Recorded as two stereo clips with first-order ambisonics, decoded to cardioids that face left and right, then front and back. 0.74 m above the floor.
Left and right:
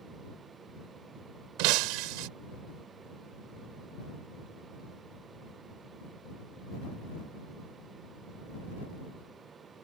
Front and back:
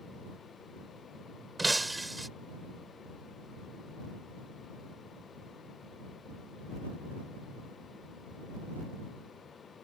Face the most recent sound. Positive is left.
turn(degrees=-95)